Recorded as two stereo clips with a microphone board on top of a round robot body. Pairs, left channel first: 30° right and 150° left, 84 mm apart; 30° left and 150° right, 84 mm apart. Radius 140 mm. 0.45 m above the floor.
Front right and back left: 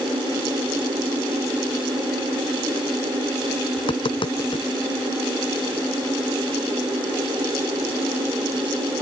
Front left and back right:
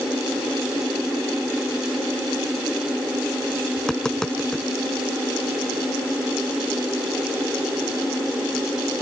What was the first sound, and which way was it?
Tapping, 50° right.